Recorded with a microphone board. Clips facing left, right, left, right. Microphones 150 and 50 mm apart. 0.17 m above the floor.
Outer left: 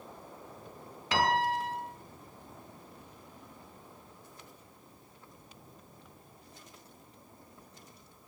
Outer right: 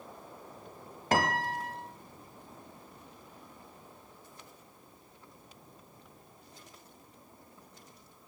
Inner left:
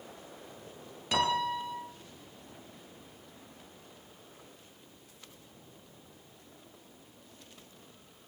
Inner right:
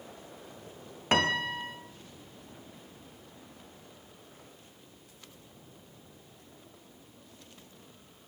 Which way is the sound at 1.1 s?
45° right (ahead or behind).